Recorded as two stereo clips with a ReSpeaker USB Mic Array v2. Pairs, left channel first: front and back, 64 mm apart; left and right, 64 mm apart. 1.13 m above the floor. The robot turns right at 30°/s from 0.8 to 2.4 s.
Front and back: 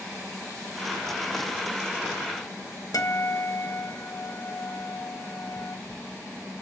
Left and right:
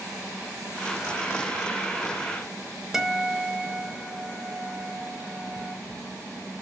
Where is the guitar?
5° right, 2.5 m.